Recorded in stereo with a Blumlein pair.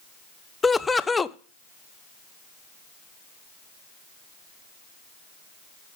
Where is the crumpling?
I don't hear crumpling.